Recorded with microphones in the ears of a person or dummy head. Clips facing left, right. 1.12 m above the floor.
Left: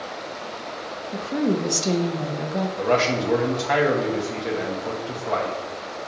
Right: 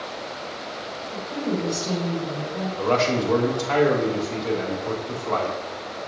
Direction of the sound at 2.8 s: 20° left (ahead or behind).